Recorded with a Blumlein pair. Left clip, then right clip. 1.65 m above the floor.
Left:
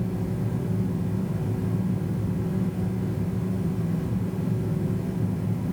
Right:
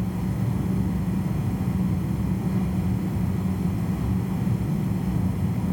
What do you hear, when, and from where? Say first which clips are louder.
0.0 s a fan: even; 70° right, 1.3 m